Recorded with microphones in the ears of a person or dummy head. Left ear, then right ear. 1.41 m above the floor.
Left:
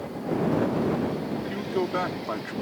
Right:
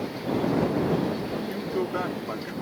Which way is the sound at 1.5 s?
20° left (ahead or behind).